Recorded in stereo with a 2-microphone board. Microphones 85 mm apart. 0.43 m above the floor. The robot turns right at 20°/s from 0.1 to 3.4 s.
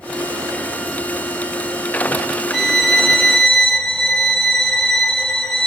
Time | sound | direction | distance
2.5 | a violin | centre (ahead or behind) | 0.8 m